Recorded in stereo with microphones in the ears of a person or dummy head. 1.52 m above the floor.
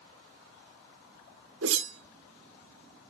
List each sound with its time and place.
1.6 s a whoosh: 75° right (ahead or behind), 0.6 m